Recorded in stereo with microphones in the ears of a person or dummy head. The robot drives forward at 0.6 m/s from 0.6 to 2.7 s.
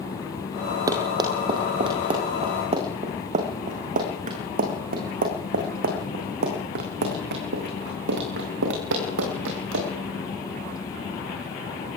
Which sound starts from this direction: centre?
Running footsteps, at 0.9 s.